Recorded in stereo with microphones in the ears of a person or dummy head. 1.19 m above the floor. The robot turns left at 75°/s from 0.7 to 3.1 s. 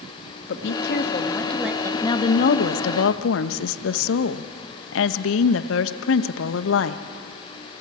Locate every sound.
0.5 s a woman speaking: 70° left, 1.4 m; by 1.9 s 25° right, 1.4 m
2.0 s a woman speaking: 165° left, 0.9 m; by 7.0 s 80° left, 0.9 m